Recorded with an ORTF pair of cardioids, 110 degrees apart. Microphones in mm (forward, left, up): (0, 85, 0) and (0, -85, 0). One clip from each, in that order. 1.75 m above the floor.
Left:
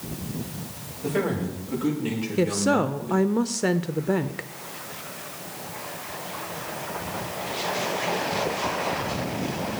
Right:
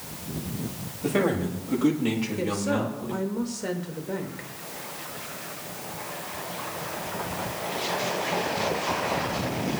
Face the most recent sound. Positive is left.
turn(degrees=45)